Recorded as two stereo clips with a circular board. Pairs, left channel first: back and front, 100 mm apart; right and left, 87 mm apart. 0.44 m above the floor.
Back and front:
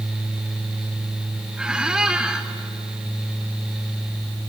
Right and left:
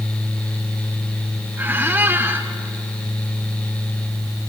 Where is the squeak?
70° left, 0.7 m.